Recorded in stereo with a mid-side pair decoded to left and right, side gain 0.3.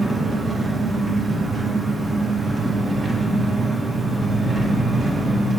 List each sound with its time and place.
0.0 s an engine running: 55° right, 2 m